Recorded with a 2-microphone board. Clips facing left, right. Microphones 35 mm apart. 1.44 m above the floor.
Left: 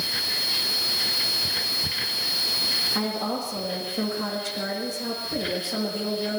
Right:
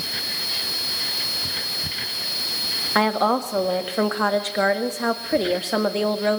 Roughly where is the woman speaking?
Right.